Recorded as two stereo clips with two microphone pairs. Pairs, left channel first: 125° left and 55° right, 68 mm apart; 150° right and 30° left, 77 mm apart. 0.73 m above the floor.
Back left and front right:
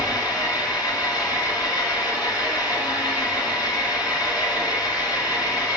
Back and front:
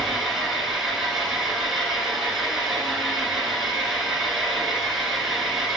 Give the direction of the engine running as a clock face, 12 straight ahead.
8 o'clock.